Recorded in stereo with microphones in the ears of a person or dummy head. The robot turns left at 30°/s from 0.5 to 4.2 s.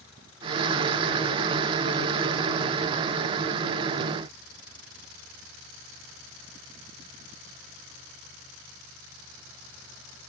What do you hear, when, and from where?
Only background noise.